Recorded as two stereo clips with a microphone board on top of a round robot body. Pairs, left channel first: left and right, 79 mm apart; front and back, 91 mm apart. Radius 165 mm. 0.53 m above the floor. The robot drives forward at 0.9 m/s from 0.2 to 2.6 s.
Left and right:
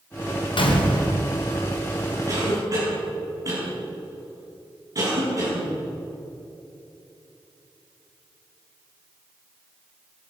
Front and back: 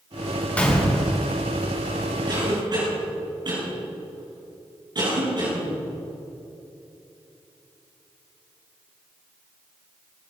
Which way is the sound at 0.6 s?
75° left.